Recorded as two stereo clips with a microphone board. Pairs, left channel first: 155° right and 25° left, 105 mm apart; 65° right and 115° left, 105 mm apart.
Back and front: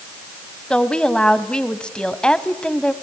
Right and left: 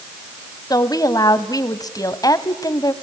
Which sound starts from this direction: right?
A woman speaking, at 0.7 s.